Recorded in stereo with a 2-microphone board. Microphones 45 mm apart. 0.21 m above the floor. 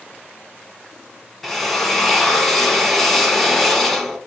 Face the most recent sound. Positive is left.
turn(degrees=5)  # may be behind; listen again after turning